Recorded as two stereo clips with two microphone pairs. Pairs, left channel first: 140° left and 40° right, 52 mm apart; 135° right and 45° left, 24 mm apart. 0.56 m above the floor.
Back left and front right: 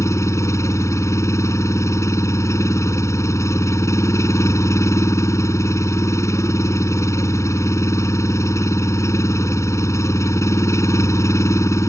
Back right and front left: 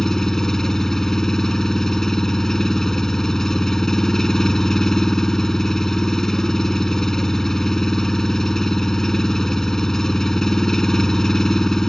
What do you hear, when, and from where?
0.0 s an engine running: 160° left